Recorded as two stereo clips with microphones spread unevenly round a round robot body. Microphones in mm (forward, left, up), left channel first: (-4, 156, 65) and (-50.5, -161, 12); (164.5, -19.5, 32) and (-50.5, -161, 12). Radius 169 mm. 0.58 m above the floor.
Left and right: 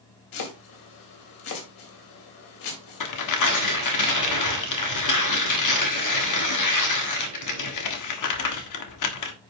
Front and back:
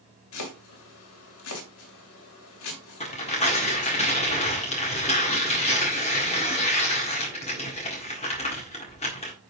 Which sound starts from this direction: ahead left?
Chopping, at 0.3 s.